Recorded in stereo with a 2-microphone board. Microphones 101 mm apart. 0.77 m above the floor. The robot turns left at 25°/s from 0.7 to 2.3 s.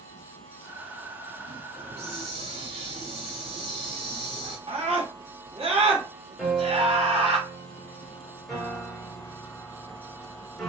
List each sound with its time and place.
1.8 s a hiss: 85° right, 1.9 m; by 4.6 s 75° right (ahead or behind), 1.9 m
4.7 s a scream: 75° right (ahead or behind), 2 m
6.4 s a piano: centre (ahead or behind), 2.5 m